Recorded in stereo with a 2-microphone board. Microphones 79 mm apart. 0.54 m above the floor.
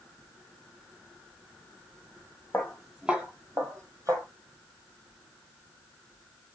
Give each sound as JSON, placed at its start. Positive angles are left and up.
{"t": 2.5, "sound": "footsteps", "side_deg": 15, "distance_m": 0.6}